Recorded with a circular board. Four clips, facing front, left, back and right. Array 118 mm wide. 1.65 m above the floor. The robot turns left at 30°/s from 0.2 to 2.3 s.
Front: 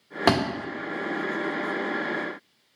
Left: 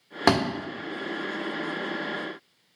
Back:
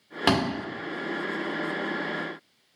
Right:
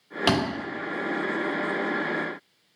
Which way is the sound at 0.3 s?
70° left.